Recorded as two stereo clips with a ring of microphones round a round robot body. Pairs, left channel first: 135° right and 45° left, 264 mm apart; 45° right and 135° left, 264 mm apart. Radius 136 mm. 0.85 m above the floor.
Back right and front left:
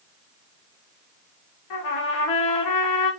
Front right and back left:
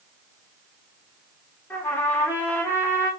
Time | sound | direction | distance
1.7 | a trumpet | 130° right | 1.2 m